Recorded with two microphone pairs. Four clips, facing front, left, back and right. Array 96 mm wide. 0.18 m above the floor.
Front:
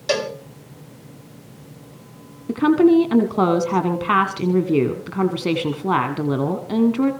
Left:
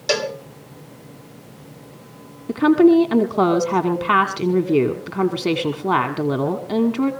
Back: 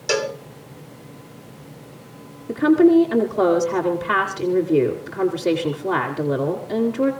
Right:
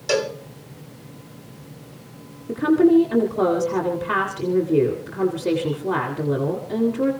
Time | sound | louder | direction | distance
0.1 | a cowbell | even, even | 65° left | 1.6 m
2.5 | a woman speaking | left 3 dB, even | 65° left | 1.7 m